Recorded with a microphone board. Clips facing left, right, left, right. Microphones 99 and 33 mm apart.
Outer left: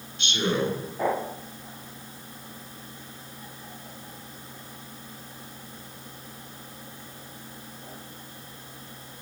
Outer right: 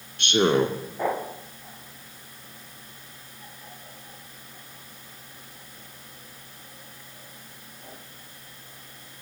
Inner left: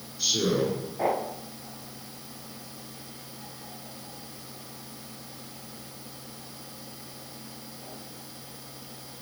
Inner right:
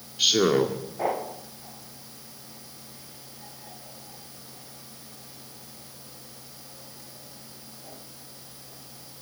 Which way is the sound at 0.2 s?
60° right (ahead or behind).